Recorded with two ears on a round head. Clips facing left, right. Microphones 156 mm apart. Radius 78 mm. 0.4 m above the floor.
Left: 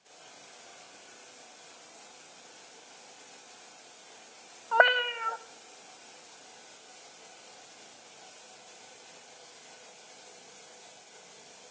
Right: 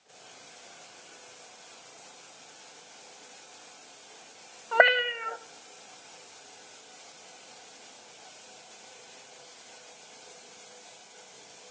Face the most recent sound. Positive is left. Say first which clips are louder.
# right 2 dB
turn(degrees=-20)  # may be behind; listen again after turning